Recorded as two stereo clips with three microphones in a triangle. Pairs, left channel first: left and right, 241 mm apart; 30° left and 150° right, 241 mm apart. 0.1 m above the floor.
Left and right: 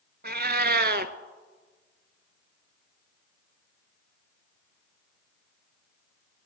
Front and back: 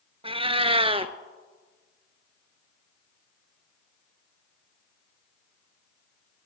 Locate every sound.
0.2 s a cat meowing: 95° right, 0.6 m